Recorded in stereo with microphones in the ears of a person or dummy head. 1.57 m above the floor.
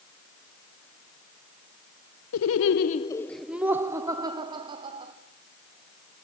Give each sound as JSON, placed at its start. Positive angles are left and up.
{"t": 2.3, "sound": "laughter", "side_deg": 75, "distance_m": 0.6}